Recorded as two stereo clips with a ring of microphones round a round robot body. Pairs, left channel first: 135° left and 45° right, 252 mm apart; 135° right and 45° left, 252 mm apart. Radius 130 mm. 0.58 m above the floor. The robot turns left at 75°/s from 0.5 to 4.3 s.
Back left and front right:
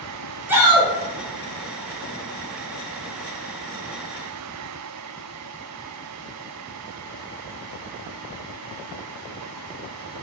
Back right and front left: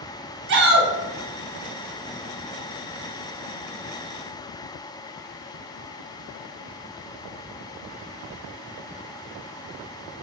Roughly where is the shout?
Ahead left.